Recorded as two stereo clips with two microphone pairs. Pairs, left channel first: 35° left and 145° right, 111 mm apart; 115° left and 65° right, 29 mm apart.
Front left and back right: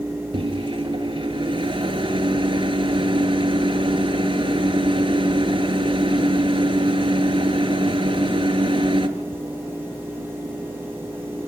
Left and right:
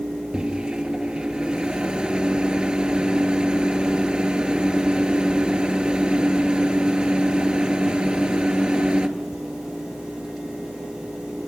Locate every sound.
0.3 s a microwave: 115° right, 2.5 m